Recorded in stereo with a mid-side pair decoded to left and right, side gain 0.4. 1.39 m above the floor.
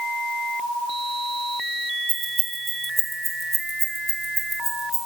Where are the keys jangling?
60° right, 2.5 m; by 5.1 s 5° left, 4 m.